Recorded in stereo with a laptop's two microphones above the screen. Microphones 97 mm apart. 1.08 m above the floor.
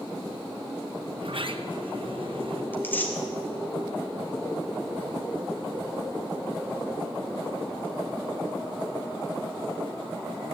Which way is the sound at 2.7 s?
20° left (ahead or behind).